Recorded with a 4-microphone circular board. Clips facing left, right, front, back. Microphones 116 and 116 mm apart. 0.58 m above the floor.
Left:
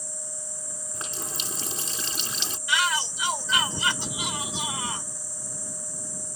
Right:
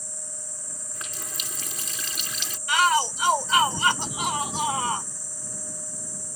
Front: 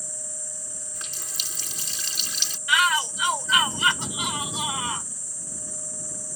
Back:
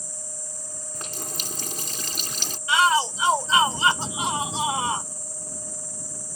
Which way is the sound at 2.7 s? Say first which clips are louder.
Right 6 dB, back 3 dB; 125° right.